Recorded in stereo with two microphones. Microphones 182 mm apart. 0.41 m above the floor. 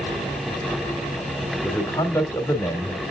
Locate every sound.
1.6 s a man speaking: 15° left (ahead or behind), 1.5 m